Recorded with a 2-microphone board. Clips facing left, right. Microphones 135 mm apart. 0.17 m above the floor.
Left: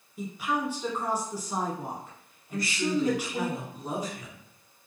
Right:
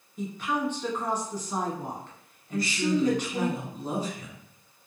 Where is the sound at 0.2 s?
10° left (ahead or behind), 1.1 m.